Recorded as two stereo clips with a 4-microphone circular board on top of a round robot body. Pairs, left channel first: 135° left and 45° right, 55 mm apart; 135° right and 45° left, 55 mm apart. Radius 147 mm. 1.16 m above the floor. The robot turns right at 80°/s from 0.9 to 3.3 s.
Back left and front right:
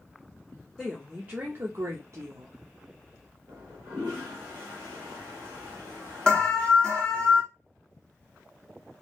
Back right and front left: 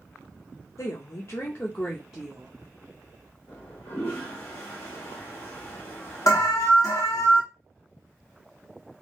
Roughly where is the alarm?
Behind right.